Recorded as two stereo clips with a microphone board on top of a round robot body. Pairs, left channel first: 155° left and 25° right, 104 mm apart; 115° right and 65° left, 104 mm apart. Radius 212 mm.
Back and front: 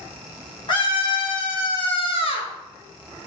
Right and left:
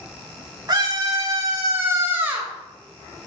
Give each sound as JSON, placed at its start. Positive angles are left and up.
{"t": 0.7, "sound": "a scream", "azimuth_deg": 120, "distance_m": 3.0}